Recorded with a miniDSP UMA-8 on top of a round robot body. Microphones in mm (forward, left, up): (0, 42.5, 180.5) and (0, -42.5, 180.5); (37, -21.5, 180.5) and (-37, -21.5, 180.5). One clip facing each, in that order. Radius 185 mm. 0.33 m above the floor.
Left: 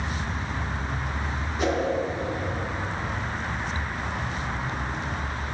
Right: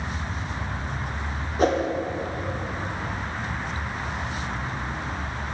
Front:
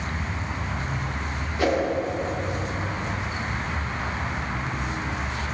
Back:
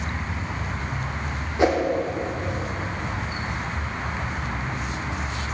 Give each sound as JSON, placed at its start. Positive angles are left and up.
{"t": 1.6, "sound": "a whoosh", "azimuth_deg": -120, "distance_m": 1.1}